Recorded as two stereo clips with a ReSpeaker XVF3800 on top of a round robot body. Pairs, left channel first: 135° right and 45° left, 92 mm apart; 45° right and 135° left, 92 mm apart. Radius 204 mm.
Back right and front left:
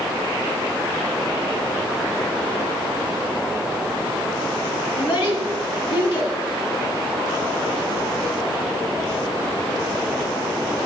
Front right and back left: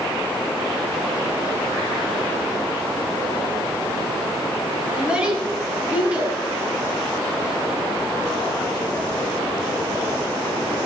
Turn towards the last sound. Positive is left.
turn(degrees=-150)